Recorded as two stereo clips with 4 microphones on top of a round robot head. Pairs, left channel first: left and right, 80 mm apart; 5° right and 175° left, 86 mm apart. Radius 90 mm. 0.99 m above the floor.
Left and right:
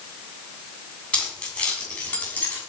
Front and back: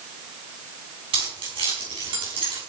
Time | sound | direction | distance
1.1 | keys jangling | 165° left | 6.5 m